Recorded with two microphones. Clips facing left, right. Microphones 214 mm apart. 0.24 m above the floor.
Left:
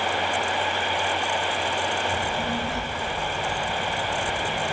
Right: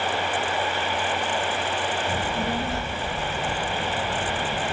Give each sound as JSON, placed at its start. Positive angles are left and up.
{"t": 2.1, "sound": "a child speaking", "side_deg": -40, "distance_m": 2.0}